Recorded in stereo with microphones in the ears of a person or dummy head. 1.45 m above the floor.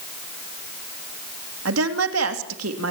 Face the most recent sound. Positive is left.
turn(degrees=-80)